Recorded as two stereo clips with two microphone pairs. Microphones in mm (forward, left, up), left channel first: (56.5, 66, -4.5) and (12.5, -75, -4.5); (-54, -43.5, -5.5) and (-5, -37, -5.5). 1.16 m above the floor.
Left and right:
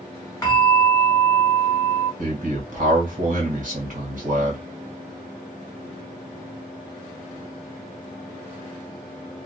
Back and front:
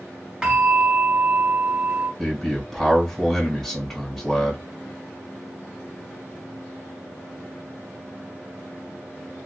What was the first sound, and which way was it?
A bell, 55° left.